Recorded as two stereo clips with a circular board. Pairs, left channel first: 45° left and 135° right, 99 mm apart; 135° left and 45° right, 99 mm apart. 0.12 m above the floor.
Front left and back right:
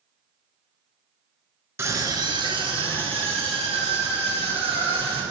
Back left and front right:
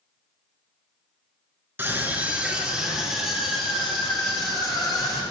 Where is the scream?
95° right, 1.5 m; by 5.2 s 135° right, 6 m.